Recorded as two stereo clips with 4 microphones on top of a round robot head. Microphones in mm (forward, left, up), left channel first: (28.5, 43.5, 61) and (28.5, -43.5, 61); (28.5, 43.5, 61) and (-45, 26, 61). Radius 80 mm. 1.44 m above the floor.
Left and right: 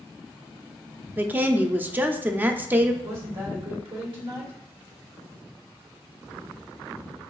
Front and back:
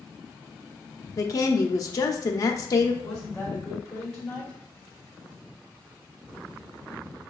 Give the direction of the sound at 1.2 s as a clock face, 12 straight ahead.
1 o'clock.